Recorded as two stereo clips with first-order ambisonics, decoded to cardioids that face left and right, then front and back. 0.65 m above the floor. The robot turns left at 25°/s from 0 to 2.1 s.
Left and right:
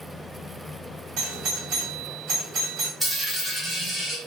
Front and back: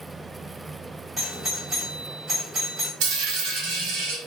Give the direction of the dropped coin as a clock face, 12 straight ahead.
6 o'clock.